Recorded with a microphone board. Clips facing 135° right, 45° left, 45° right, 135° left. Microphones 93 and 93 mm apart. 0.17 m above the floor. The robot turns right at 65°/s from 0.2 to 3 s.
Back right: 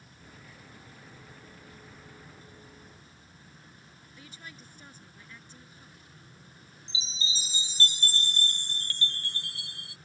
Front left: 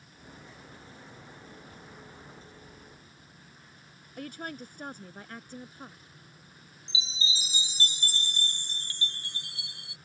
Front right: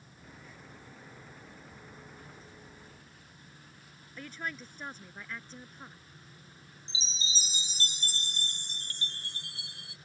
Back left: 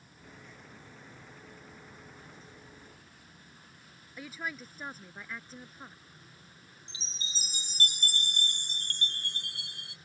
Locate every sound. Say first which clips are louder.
4.2 s a woman speaking: front left 12 dB, even; 50° left
6.9 s a chime: front left 2 dB, front right 6 dB; 115° left